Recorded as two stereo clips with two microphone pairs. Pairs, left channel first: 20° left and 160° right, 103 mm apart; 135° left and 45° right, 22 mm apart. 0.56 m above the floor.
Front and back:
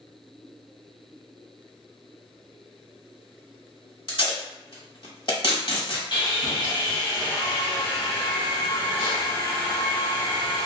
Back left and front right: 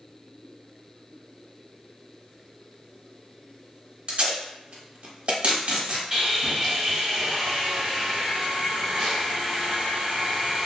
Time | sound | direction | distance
4.1 | tape being pulled | 20° right | 1.1 m
6.1 | sawing | straight ahead | 1.7 m